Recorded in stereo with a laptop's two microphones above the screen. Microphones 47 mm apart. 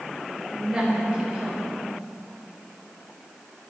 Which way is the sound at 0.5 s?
15° right (ahead or behind).